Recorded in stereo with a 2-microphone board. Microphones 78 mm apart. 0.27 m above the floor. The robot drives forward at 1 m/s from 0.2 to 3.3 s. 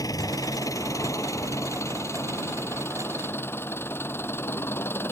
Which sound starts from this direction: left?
An engine running, at 0.0 s.